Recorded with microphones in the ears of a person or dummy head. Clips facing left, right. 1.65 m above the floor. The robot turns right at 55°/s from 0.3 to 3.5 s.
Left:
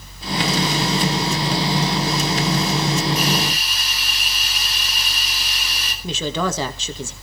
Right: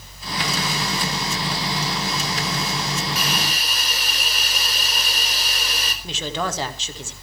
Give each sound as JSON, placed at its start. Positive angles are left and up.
{"t": 3.1, "sound": "a hiss", "side_deg": -65, "distance_m": 4.0}
{"t": 6.0, "sound": "a woman speaking", "side_deg": 80, "distance_m": 2.0}